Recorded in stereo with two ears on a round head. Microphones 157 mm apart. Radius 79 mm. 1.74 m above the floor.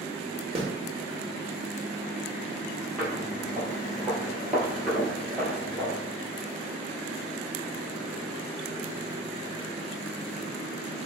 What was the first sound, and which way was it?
A snare drum, 30° right (ahead or behind).